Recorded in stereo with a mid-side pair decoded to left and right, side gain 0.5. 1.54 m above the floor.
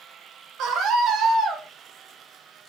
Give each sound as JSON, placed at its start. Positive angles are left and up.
{"t": 0.6, "sound": "a scream", "azimuth_deg": -70, "distance_m": 2.5}